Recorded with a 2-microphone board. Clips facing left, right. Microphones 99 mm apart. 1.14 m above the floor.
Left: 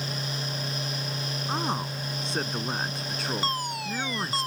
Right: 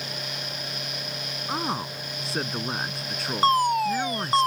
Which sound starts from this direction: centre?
A man speaking, at 1.5 s.